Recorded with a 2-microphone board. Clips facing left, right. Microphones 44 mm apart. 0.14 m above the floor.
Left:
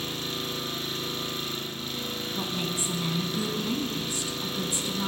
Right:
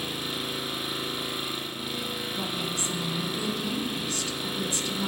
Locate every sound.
0.0 s an engine running: 15° right (ahead or behind), 1.1 m
2.4 s a woman speaking: 20° left (ahead or behind), 1.0 m